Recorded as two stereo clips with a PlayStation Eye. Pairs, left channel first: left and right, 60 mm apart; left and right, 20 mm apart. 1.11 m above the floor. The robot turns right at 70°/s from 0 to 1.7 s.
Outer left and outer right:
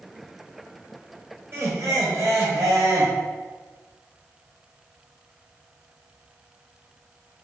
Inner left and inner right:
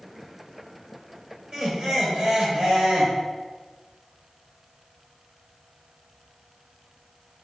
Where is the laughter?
40° right (ahead or behind), 0.6 m; by 3.1 s 50° right (ahead or behind), 0.6 m.